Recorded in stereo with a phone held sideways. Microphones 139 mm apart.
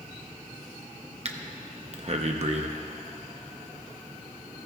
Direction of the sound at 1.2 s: 50° right (ahead or behind).